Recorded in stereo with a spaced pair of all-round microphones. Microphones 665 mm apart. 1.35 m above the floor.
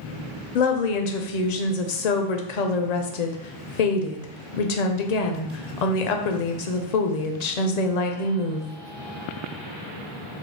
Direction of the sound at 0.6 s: 75° left (ahead or behind).